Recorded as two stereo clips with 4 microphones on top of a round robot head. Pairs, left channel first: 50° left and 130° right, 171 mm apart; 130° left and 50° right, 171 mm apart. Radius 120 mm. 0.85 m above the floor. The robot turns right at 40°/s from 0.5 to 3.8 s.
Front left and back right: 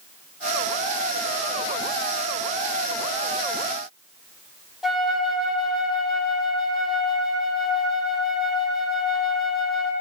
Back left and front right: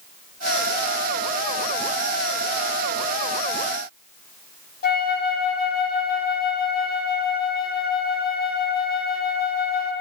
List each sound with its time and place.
4.8 s a flute: 140° left, 1.0 m